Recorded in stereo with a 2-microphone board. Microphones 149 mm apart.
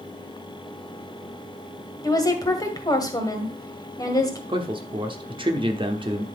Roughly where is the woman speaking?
Left.